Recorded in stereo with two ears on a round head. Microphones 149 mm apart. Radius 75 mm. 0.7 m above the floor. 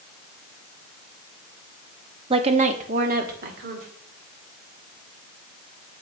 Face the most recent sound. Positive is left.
turn(degrees=-65)  # may be behind; listen again after turning